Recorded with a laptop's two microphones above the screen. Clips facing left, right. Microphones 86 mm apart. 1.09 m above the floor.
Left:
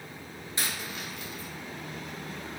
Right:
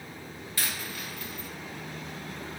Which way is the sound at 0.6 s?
20° left (ahead or behind).